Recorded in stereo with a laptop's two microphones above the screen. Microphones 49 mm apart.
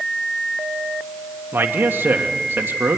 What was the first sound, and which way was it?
A man speaking, 45° right (ahead or behind).